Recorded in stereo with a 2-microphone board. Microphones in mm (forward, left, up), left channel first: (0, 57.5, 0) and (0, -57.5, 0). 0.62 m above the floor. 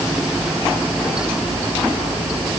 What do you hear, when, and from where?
Only background noise.